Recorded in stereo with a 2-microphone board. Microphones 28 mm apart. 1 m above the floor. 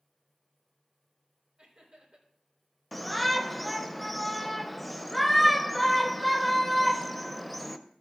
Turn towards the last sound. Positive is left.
turn(degrees=5)  # may be behind; listen again after turning